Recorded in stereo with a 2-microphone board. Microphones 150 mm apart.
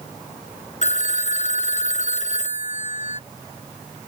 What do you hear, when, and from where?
0.8 s a phone ringing: 55° left (ahead or behind)